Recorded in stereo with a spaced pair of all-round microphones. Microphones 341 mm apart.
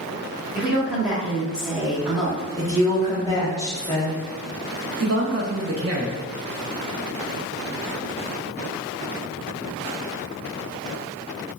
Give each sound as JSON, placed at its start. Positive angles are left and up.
{"t": 0.6, "sound": "a woman speaking", "side_deg": -5, "distance_m": 1.5}
{"t": 2.6, "sound": "a woman speaking", "side_deg": 10, "distance_m": 1.2}
{"t": 5.0, "sound": "a man speaking", "side_deg": -45, "distance_m": 0.7}